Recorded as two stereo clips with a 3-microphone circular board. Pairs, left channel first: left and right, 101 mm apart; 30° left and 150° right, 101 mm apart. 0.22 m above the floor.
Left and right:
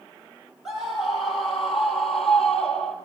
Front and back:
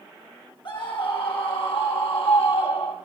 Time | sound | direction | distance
0.7 | a scream | 5° right | 9.5 m